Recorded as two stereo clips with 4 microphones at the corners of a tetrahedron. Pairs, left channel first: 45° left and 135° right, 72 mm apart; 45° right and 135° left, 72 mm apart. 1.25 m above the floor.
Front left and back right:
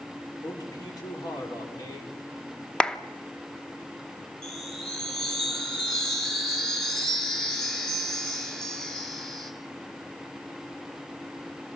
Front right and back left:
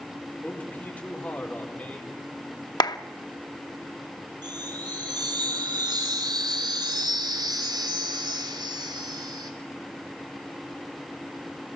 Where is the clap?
30° right, 0.8 m.